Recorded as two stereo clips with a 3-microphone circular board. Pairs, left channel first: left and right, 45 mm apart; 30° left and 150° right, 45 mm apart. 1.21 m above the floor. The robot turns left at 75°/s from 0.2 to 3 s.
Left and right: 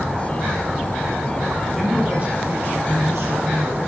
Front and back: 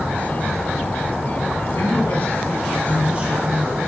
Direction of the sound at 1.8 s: Straight ahead.